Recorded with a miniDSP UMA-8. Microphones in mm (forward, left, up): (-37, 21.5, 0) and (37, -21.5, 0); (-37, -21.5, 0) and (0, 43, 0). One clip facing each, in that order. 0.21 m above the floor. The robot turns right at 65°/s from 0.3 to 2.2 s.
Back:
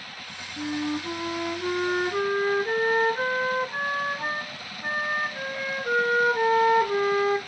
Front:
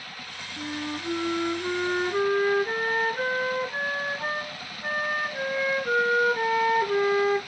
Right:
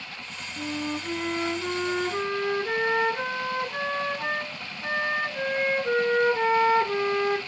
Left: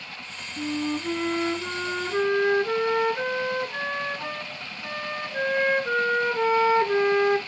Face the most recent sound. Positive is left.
turn(degrees=-160)